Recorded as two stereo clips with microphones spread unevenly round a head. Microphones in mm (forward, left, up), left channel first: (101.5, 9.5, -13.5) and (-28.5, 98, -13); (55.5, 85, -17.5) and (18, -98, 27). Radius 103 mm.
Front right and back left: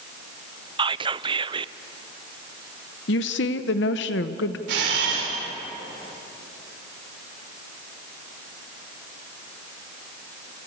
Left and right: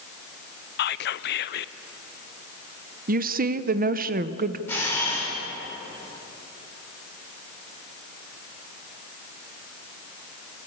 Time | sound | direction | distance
0.8 | whispering | 90° left | 0.6 m
3.1 | a woman speaking | 60° right | 0.8 m
4.7 | a camera shutter | 160° left | 5 m